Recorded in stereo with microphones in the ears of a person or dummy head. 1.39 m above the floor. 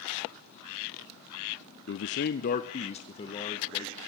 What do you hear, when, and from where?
1.9 s a man speaking: 50° left (ahead or behind), 0.5 m; by 4.0 s 25° left (ahead or behind), 2.5 m